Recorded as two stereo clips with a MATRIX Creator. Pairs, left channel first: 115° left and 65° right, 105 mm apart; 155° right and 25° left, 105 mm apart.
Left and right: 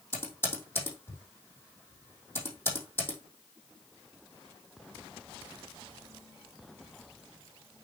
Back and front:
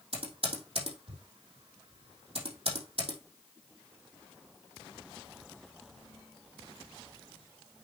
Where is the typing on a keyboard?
45° left, 3 m.